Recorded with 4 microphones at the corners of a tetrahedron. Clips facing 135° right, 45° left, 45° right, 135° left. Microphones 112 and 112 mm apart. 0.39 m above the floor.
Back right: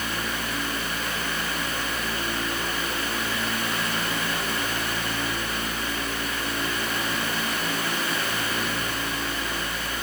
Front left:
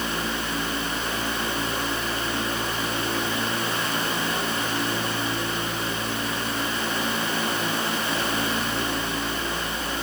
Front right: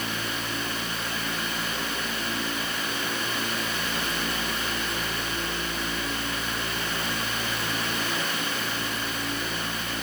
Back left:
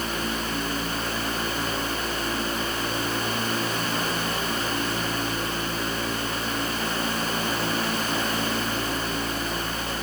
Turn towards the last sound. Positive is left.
No sound to turn to.